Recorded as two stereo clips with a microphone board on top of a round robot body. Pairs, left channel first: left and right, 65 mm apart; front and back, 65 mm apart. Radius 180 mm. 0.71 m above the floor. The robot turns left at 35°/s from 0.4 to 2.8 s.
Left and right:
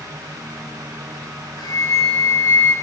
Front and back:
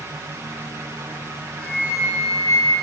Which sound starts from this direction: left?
A flute, at 1.6 s.